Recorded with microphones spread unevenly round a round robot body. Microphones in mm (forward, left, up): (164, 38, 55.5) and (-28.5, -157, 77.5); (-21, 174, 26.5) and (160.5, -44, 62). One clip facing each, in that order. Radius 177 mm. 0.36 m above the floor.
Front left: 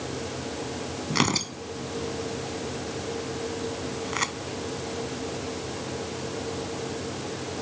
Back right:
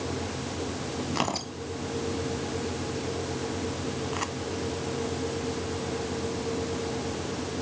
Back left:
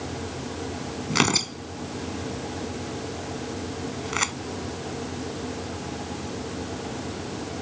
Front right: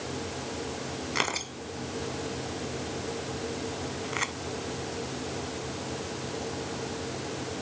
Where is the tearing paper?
110° left.